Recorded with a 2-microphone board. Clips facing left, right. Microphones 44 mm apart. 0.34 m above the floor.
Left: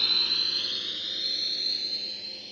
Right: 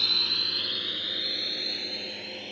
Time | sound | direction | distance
0.0 | a drone | centre (ahead or behind) | ?